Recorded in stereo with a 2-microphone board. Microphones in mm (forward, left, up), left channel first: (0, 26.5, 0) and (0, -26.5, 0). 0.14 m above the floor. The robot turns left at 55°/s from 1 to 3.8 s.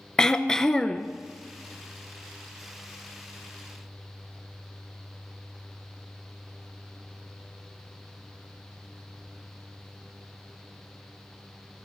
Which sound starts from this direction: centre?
Throat clearing, at 0.2 s.